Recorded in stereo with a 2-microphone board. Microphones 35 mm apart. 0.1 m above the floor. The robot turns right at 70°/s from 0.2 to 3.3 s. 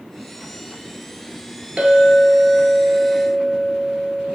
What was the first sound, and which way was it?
A clink, 130° right.